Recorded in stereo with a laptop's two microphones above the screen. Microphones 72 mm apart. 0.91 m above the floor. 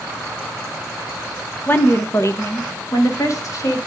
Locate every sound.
1.7 s a woman speaking: 30° left (ahead or behind), 0.7 m; by 3.8 s 50° left (ahead or behind), 1.6 m